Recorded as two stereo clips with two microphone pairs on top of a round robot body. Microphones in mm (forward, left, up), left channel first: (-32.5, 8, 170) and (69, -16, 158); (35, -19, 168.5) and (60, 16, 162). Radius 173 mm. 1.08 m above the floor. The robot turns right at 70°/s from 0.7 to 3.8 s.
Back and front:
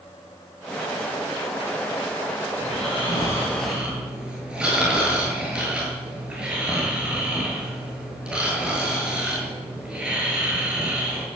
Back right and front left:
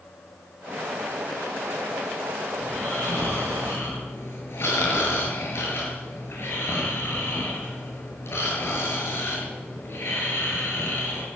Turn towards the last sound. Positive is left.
turn(degrees=-95)